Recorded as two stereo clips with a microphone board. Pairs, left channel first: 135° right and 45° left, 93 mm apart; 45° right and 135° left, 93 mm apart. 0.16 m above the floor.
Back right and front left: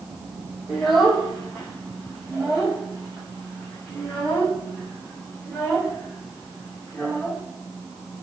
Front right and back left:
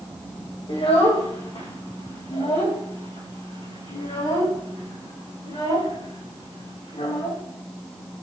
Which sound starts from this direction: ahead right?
A child speaking, at 0.7 s.